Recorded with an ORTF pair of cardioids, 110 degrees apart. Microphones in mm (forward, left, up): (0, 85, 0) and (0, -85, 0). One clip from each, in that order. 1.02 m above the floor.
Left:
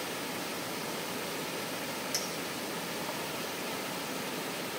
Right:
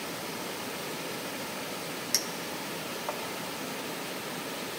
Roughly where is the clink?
Ahead right.